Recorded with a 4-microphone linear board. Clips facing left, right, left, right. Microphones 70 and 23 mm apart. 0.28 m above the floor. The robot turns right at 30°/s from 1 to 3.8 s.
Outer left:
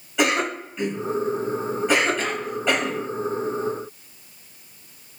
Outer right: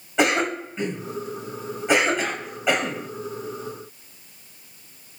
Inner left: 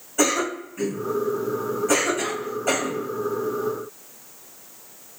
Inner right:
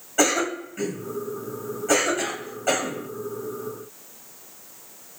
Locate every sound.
0.2 s a cough: 30° right (ahead or behind), 1.4 m; by 3.1 s 5° right (ahead or behind), 1.4 m